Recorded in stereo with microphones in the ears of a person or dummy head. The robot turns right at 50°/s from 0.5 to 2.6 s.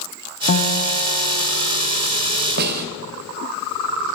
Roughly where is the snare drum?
Right.